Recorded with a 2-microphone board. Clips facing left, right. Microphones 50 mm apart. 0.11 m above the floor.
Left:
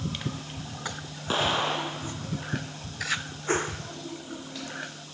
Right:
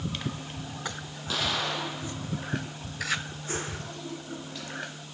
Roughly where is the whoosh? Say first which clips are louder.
Left 8 dB; left.